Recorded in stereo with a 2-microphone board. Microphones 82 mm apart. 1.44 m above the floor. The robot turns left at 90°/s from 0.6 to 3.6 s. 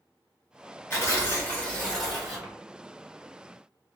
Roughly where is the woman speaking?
I don't hear a woman speaking.